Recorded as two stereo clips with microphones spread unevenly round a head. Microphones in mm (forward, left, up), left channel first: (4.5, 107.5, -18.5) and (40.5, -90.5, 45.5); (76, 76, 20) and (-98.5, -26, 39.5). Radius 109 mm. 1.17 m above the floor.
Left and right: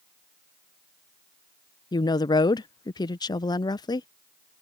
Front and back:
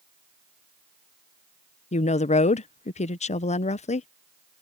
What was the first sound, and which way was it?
A woman speaking, 65° left.